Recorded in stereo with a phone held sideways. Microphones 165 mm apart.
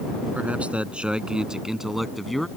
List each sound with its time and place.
0.3 s a man speaking: 10° right (ahead or behind); by 2.5 s centre (ahead or behind)